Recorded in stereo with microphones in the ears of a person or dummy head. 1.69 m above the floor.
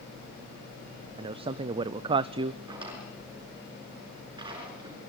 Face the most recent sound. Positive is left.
turn(degrees=-25)  # may be behind; listen again after turning